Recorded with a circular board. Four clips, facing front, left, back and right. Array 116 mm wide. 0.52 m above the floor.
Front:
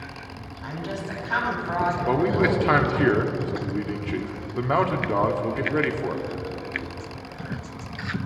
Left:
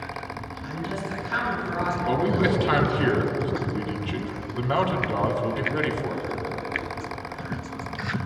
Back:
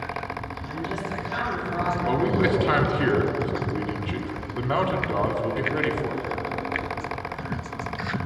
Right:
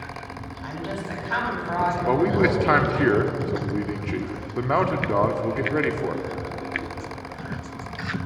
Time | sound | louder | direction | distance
0.6 | a woman speaking | right 1 dB, front 1 dB | 45° right | 4 m
2.1 | a man speaking | right 2 dB, even | 65° right | 1.2 m